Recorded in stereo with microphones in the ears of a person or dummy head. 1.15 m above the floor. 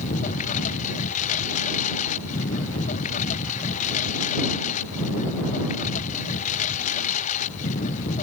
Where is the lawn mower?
40° left (ahead or behind).